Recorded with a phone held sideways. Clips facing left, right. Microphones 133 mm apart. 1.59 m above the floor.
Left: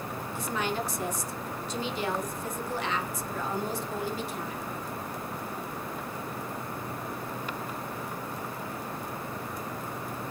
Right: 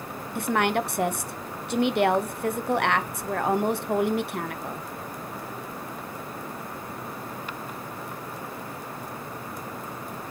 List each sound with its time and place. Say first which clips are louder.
0.3 s a woman speaking: right 8 dB; 65° right (ahead or behind), 0.7 m